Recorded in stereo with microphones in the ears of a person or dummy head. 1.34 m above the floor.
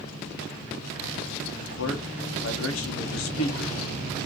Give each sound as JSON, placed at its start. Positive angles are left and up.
{"t": 1.6, "sound": "a man speaking", "side_deg": 65, "distance_m": 1.0}